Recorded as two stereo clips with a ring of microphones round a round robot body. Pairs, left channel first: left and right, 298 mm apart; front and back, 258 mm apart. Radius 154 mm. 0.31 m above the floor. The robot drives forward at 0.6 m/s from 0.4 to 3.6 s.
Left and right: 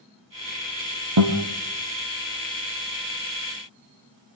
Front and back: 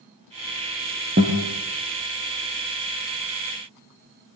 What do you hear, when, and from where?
1.2 s a guitar: 115° right, 3 m; by 1.4 s 120° right, 3 m